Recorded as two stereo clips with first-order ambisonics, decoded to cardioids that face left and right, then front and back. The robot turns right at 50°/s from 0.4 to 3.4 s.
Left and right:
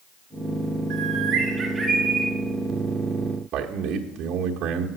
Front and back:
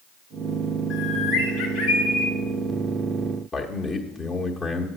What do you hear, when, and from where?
0.9 s a bird: 55° right, 2.5 m; by 2.3 s 15° left, 2.5 m
3.5 s a man speaking: 70° right, 1.0 m